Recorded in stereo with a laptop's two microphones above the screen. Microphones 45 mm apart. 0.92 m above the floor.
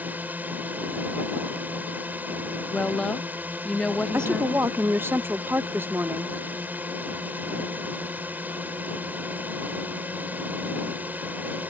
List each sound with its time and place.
0.0 s a drone: 40° right (ahead or behind)
2.7 s a woman speaking: 20° left (ahead or behind)
4.1 s a woman speaking: 60° right (ahead or behind)